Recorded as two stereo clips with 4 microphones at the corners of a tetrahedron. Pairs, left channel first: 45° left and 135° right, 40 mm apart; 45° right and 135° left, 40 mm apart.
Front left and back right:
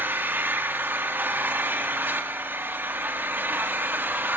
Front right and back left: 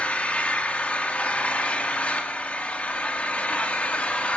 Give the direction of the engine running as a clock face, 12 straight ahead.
3 o'clock.